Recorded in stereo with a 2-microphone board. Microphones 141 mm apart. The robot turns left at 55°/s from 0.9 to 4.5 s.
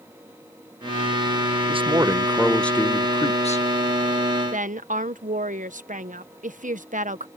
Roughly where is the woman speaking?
Right.